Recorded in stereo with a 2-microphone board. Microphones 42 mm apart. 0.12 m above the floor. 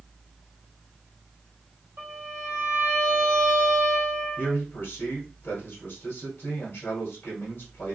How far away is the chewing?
I don't hear chewing.